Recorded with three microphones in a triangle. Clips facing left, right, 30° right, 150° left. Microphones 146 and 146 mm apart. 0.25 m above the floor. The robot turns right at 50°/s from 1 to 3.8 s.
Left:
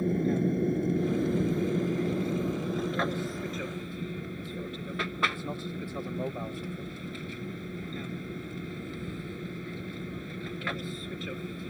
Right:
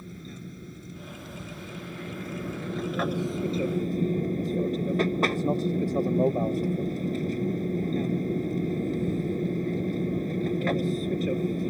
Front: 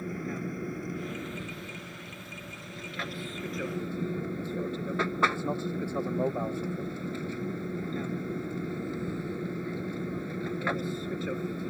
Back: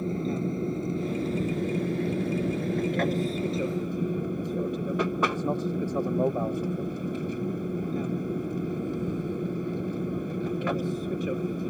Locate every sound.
0.0 s an aircraft: 85° left; by 11.7 s 135° right